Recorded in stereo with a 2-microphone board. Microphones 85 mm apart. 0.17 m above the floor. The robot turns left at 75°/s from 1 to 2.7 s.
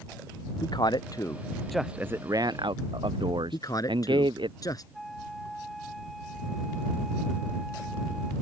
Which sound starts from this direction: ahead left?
A man speaking, at 0.6 s.